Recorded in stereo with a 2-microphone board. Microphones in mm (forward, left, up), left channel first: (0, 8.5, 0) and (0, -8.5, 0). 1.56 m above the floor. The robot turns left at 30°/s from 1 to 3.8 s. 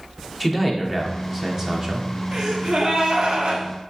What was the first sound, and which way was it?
A man speaking, 5° right.